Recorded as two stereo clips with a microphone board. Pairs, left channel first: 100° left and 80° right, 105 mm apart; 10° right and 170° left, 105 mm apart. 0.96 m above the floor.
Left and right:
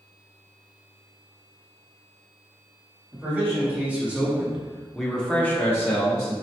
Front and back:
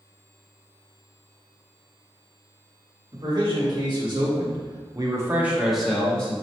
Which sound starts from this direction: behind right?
A man speaking, at 3.1 s.